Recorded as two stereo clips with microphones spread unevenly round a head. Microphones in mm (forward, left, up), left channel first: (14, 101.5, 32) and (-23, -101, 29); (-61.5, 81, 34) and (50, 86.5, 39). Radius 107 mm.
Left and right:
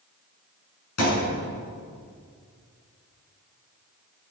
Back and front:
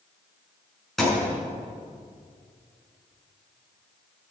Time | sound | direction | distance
1.0 | a thud | 95° left | 7 m